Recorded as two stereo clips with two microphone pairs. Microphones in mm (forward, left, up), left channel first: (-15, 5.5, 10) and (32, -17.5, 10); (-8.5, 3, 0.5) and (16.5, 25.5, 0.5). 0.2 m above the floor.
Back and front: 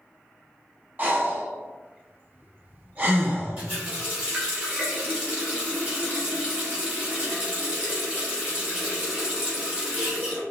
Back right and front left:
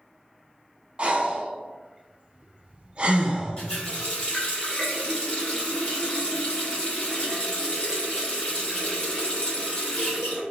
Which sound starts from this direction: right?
A running tap, at 3.6 s.